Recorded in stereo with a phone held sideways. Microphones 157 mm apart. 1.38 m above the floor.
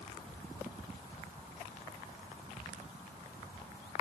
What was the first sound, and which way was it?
Only background noise.